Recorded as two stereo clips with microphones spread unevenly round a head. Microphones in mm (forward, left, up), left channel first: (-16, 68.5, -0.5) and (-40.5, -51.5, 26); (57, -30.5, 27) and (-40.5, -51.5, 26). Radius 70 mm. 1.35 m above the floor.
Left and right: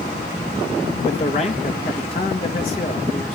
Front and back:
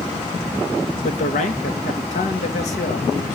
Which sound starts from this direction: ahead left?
A man speaking, at 1.0 s.